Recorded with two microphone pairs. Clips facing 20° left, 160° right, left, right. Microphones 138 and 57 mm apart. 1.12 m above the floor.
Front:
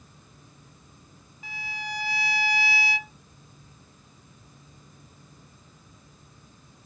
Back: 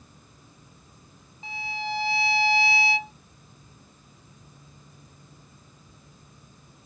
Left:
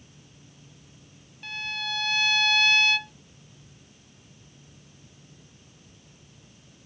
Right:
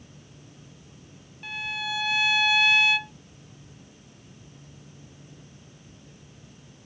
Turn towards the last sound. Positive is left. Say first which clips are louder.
# back 5 dB, right 1 dB
turn(degrees=-150)